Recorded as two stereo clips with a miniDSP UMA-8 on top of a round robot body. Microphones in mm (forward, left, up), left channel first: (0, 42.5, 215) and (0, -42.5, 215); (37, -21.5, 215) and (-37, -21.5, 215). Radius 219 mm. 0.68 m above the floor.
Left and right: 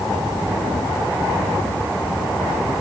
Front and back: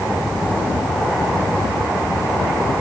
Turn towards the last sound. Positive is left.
No sound to turn to.